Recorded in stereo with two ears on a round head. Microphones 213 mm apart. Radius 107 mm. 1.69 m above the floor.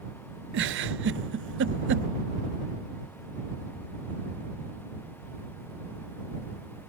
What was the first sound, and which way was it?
A giggle, 50° right (ahead or behind).